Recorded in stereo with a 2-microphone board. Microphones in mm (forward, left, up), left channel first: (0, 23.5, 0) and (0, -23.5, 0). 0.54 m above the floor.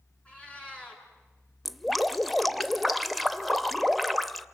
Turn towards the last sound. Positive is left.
turn(degrees=0)  # may be behind; listen again after turning